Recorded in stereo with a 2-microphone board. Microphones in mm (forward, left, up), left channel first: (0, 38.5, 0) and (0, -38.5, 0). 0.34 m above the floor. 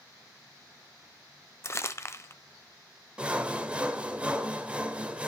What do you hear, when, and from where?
1.6 s crumpling: 35° left (ahead or behind), 0.8 m
3.2 s sawing: 15° right (ahead or behind), 1.3 m